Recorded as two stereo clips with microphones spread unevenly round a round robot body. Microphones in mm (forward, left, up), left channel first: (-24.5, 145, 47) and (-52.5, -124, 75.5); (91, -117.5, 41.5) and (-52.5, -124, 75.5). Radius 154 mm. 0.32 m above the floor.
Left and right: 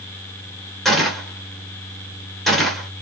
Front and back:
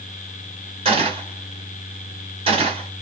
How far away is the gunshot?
About 1.2 m.